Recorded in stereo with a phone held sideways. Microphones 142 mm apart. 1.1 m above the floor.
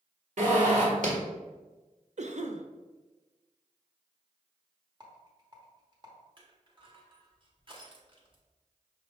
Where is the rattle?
30° right (ahead or behind), 1.2 m.